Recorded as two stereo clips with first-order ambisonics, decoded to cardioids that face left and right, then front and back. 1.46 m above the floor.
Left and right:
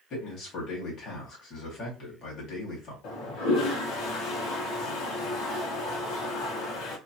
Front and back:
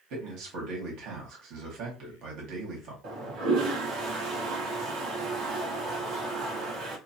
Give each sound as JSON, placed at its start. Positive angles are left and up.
{"t": 0.1, "sound": "a man speaking", "azimuth_deg": 145, "distance_m": 1.6}
{"t": 3.0, "sound": "a toilet flushing", "azimuth_deg": 135, "distance_m": 1.1}